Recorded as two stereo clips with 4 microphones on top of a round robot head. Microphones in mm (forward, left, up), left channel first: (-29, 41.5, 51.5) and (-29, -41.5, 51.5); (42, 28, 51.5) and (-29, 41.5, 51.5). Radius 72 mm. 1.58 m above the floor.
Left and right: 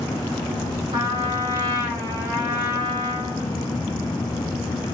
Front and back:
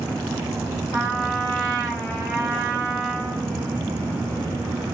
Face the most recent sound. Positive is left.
turn(degrees=-90)